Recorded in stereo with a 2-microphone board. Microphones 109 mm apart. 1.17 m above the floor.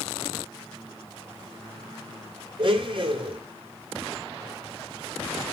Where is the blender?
50° right (ahead or behind), 3.5 m.